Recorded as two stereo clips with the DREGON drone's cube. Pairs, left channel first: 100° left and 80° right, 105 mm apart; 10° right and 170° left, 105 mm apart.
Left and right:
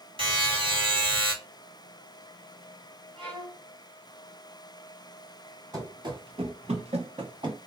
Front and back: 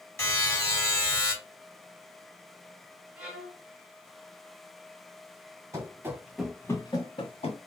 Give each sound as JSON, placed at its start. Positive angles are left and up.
{"t": 0.2, "sound": "a buzzer", "azimuth_deg": -75, "distance_m": 2.5}
{"t": 3.2, "sound": "a violin", "azimuth_deg": -110, "distance_m": 1.4}
{"t": 5.7, "sound": "running footsteps", "azimuth_deg": -130, "distance_m": 1.6}